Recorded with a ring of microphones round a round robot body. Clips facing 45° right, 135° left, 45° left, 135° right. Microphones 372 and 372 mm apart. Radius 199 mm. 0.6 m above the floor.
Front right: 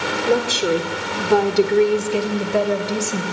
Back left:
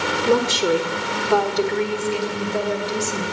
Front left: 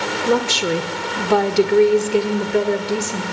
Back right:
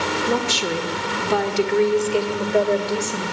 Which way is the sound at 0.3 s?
55° left.